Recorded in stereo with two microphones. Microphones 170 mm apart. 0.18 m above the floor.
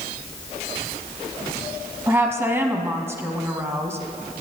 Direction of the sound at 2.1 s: 15° right (ahead or behind).